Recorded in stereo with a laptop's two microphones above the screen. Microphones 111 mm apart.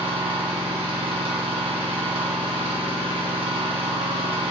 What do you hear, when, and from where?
0.0 s an engine running: 60° right (ahead or behind), 0.9 m